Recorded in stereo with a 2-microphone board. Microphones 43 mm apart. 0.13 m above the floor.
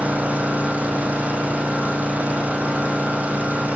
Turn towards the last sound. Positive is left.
turn(degrees=-40)  # may be behind; listen again after turning